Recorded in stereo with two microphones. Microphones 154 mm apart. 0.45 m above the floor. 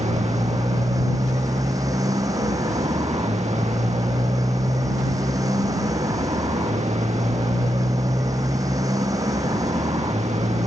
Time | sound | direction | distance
0.0 | a motorcycle | 20° right (ahead or behind) | ?